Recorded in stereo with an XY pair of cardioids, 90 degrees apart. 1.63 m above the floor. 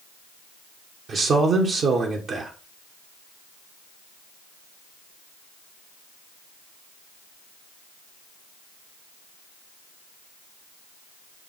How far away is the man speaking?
About 1.4 m.